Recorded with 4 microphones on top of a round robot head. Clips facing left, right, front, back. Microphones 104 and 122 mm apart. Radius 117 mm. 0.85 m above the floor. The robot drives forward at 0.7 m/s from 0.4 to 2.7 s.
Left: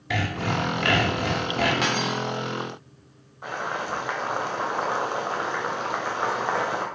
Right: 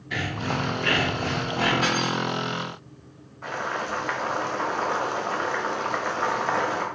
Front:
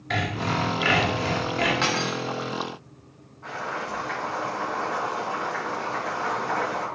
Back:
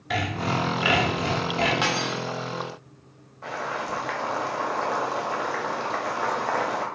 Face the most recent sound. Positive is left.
turn(degrees=165)